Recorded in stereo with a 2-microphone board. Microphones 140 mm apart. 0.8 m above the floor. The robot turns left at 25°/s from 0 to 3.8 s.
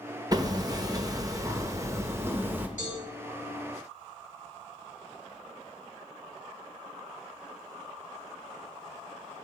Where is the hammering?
30° right (ahead or behind), 0.7 m; by 2.7 s 15° right (ahead or behind), 0.7 m.